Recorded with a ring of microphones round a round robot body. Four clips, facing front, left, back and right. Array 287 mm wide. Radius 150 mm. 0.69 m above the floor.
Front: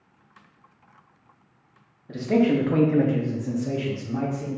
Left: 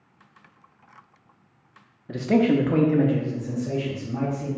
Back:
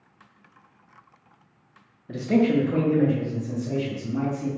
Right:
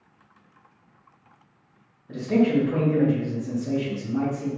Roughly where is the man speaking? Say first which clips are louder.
Left 1 dB, even; left.